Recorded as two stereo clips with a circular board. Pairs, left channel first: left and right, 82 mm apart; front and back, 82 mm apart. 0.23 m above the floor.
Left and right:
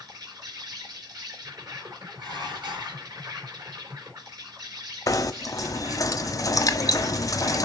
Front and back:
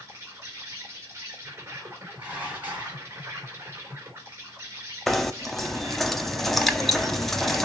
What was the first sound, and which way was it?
An insect, 125° right.